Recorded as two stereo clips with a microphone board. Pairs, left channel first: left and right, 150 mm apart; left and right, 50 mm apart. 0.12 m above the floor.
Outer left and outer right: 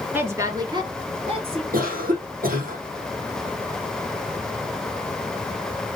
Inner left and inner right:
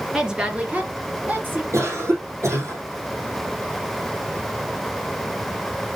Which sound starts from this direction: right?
A cough, at 1.7 s.